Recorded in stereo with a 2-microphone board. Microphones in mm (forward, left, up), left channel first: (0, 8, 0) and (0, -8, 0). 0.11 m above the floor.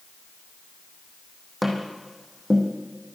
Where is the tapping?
5° right (ahead or behind), 3 m.